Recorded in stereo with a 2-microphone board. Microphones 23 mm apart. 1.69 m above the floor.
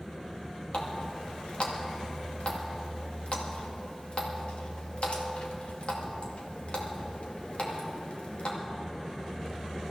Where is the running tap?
60° left (ahead or behind), 2 m.